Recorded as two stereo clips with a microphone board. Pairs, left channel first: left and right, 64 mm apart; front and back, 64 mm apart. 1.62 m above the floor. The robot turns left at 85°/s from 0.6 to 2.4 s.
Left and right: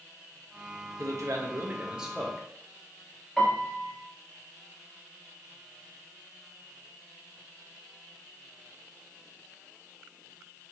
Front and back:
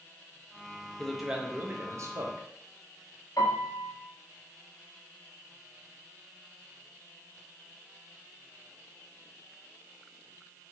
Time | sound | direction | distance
1.0 | a man speaking | 75° right | 0.7 m
3.4 | a piano | 10° left | 0.8 m